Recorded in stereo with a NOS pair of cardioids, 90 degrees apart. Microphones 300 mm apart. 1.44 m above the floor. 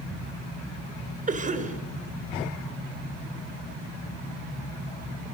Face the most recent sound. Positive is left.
turn(degrees=-25)